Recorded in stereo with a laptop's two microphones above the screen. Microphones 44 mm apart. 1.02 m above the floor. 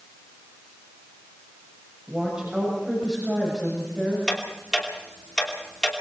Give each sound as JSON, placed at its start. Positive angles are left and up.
{"t": 2.1, "sound": "a woman speaking", "side_deg": -20, "distance_m": 7.0}
{"t": 4.3, "sound": "ticking", "side_deg": 15, "distance_m": 3.0}